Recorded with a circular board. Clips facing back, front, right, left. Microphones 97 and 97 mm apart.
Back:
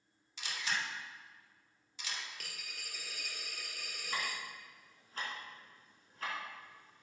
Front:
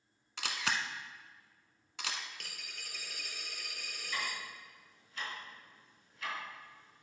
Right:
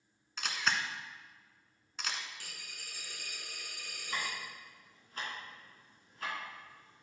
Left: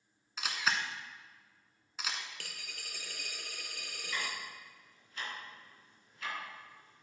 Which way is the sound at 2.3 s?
90° left.